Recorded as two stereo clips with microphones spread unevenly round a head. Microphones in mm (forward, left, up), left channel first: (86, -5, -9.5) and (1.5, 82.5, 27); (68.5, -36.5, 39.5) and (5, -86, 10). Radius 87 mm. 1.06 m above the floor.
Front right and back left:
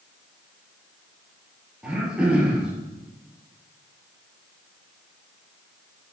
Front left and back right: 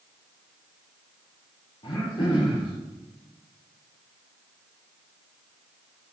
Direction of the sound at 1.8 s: 55° left.